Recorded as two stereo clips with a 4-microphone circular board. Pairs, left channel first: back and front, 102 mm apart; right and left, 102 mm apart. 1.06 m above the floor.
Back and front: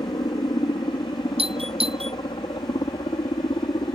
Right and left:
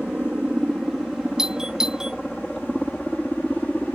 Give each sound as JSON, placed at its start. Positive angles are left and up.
{"t": 0.0, "sound": "a helicopter", "azimuth_deg": 175}
{"t": 1.4, "sound": "a doorbell", "azimuth_deg": 5}